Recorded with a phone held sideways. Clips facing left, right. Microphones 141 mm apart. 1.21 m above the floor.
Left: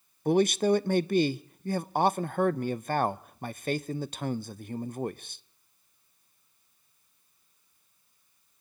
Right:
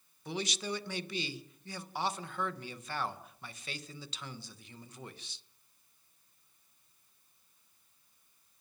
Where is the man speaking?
55° left (ahead or behind), 0.6 m.